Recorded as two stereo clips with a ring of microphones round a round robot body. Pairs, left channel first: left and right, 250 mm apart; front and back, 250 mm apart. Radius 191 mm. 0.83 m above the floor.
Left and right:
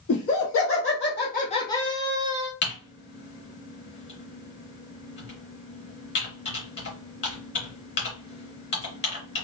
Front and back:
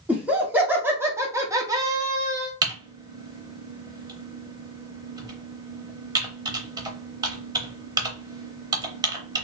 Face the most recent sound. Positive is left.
turn(degrees=115)